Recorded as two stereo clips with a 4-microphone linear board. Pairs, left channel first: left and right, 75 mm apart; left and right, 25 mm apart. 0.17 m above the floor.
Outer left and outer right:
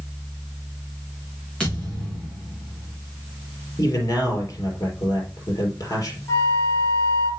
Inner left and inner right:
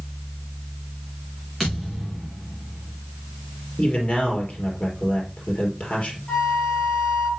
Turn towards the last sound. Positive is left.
turn(degrees=35)  # may be behind; listen again after turning